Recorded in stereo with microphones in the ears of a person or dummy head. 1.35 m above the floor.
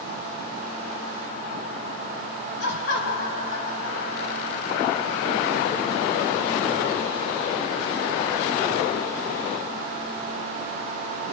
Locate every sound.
2.6 s laughter: 65° left (ahead or behind), 1.5 m